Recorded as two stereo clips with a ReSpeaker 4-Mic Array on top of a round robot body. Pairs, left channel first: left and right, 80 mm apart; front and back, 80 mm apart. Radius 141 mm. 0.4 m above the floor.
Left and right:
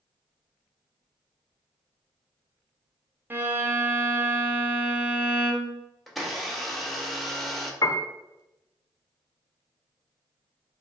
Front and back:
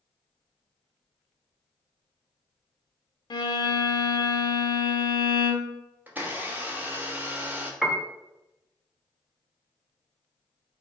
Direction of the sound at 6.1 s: Straight behind.